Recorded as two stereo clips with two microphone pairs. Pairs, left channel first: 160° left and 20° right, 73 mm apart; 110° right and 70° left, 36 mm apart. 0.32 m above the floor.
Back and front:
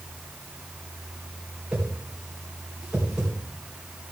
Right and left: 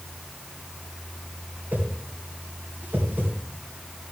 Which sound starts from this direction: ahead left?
A whoosh, at 1.7 s.